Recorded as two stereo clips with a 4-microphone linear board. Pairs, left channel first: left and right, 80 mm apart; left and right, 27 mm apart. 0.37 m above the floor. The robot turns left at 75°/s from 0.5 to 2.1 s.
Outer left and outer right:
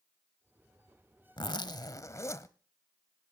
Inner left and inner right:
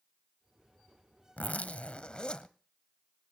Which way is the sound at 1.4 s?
100° left.